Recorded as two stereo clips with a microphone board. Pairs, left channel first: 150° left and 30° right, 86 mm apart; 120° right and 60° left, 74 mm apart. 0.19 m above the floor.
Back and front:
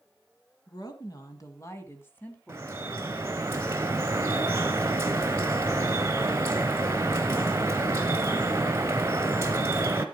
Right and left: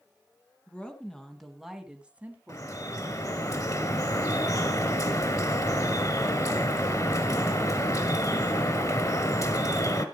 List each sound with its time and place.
0.7 s a woman speaking: 170° left, 2.5 m; by 3.5 s 45° left, 2 m
2.5 s dripping: 85° right, 1.4 m